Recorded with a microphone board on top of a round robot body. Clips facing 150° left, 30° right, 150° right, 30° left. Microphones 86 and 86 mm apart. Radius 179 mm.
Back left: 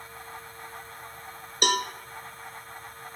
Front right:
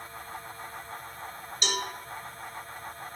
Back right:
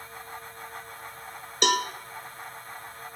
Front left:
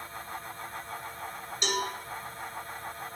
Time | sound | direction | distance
1.6 | a cowbell | 170° right | 0.7 m